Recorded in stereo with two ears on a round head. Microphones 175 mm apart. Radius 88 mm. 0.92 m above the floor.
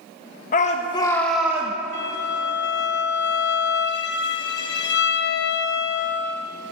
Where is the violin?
60° left (ahead or behind), 0.7 m.